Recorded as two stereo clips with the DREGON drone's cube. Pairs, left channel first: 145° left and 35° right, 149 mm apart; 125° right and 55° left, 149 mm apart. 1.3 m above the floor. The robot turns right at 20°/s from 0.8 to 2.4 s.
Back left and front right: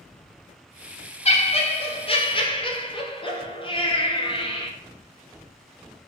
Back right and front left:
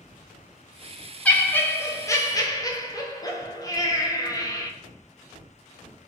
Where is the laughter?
155° left, 0.5 m; by 4.7 s straight behind, 0.5 m.